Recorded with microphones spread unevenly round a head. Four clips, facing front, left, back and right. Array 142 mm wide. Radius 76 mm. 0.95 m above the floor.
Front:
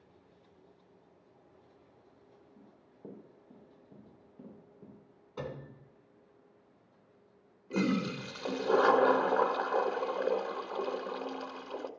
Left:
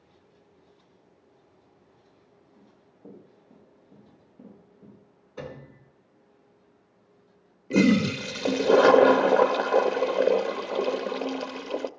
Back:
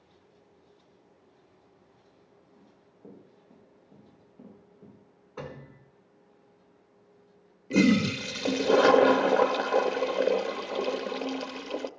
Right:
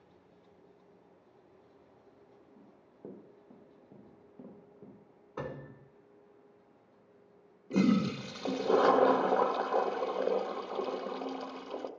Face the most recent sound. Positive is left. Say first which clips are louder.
# left 7 dB, back 8 dB
turn(degrees=130)